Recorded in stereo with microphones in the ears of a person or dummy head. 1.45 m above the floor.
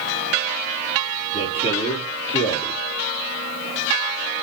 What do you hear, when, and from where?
1.3 s a man speaking: 35° left (ahead or behind), 3.5 m